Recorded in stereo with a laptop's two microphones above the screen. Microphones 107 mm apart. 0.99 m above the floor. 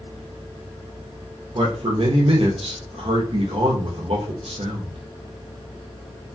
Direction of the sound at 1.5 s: 65° right (ahead or behind).